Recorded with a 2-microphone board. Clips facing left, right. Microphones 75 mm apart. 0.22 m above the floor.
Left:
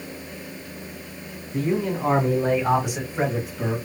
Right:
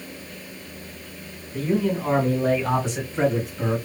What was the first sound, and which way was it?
A man speaking, 30° left (ahead or behind).